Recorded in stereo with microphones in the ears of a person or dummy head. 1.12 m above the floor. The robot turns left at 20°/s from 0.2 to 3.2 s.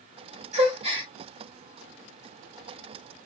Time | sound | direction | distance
0.5 | a gasp | 40° right (ahead or behind) | 1.7 m